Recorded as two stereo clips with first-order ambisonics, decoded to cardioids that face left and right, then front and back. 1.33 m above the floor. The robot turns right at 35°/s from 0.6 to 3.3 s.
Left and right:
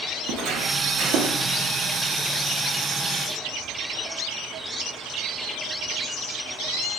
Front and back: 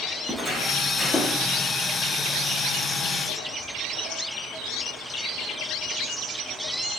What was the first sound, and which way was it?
Footsteps, 105° right.